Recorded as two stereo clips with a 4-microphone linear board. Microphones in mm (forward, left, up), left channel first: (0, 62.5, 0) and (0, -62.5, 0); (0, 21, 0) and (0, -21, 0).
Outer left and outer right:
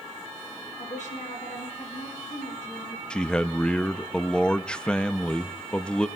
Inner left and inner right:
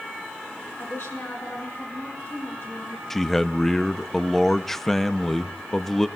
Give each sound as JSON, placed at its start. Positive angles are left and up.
{"t": 0.8, "sound": "a woman speaking", "side_deg": 85, "distance_m": 8.5}
{"t": 3.1, "sound": "a man speaking", "side_deg": 5, "distance_m": 0.5}